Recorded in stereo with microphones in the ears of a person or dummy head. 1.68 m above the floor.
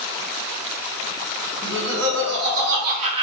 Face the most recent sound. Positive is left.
turn(degrees=-30)  # may be behind; listen again after turning